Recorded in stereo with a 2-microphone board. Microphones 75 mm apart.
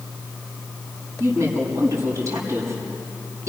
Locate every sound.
1.2 s a woman speaking: 45° right (ahead or behind), 6.5 m